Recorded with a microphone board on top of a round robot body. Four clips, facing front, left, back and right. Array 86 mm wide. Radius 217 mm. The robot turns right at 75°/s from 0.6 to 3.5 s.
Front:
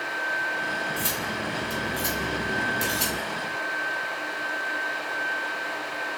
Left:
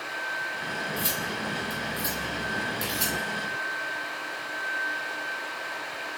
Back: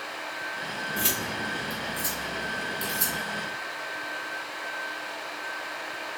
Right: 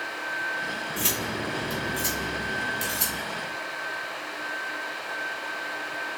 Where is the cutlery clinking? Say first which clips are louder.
Right 1 dB, front 1 dB; 130° right, 1.2 m; by 3.2 s 40° left, 1.2 m.